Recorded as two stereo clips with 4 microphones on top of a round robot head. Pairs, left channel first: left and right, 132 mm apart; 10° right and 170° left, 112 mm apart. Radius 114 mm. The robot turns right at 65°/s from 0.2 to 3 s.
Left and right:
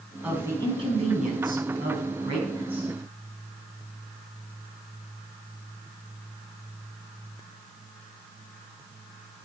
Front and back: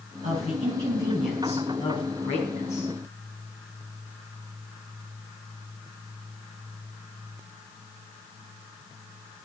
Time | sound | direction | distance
0.2 | a woman speaking | 175° right | 5 m